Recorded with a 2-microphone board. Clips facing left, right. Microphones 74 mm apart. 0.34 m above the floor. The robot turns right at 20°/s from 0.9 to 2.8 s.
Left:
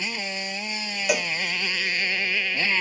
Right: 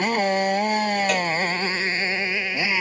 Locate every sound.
0.0 s a motorcycle: 55° right; by 2.8 s 15° right
1.1 s a cowbell: 10° left (ahead or behind); by 1.3 s 5° left (ahead or behind)